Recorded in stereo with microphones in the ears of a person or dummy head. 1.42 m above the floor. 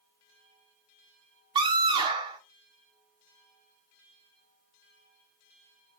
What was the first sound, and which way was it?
A scream, 25° right (ahead or behind).